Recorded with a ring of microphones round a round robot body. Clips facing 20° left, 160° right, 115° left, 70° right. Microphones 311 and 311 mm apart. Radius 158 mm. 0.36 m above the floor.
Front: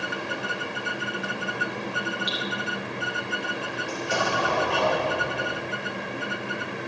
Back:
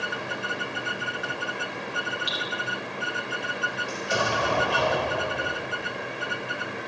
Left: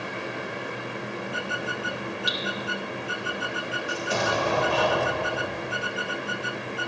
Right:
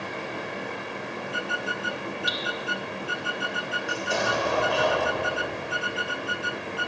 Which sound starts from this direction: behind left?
Dripping, at 2.3 s.